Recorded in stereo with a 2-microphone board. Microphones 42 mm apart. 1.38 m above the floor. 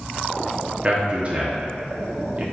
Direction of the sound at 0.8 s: 30° right (ahead or behind).